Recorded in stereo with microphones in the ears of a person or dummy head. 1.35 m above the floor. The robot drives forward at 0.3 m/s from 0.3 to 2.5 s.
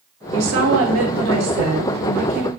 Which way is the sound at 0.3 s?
70° right (ahead or behind).